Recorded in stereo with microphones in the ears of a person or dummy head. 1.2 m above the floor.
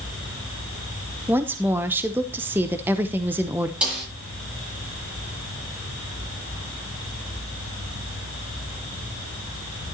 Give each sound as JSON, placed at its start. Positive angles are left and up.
{"t": 1.3, "sound": "a woman speaking", "side_deg": -10, "distance_m": 0.6}
{"t": 3.8, "sound": "a snare drum", "side_deg": -5, "distance_m": 9.0}